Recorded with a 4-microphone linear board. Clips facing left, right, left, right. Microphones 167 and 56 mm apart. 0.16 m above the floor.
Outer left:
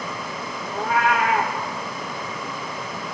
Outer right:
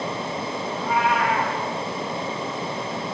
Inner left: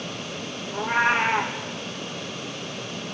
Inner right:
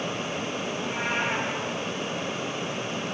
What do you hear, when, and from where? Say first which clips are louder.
0.7 s a cat meowing: outer left 2 dB, inner left 10 dB; 85° left, 5.5 m